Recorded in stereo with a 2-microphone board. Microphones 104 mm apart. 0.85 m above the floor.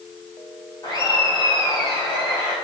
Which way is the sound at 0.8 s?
45° left (ahead or behind).